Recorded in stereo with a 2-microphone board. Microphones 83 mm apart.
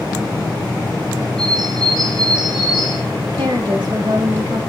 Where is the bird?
70° right (ahead or behind), 3.5 m.